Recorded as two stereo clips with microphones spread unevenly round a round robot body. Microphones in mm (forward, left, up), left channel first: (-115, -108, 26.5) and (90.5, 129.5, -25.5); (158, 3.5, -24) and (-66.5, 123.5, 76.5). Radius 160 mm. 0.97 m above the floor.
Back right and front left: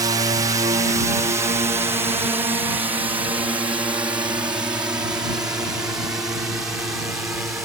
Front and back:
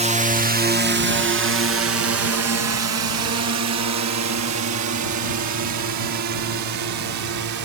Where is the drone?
70° left; by 7.7 s 135° left.